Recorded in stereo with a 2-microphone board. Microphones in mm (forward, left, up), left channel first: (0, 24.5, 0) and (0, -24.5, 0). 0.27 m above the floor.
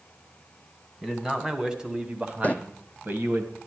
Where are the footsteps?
30° left (ahead or behind), 0.6 m.